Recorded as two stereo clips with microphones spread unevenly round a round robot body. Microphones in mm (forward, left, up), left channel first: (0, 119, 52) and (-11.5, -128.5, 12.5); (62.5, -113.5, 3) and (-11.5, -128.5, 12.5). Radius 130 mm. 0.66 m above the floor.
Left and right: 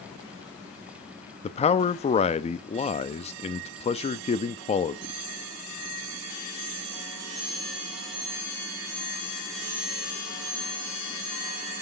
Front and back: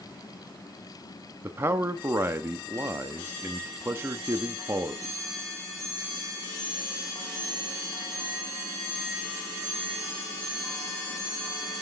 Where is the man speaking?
145° left, 0.5 m.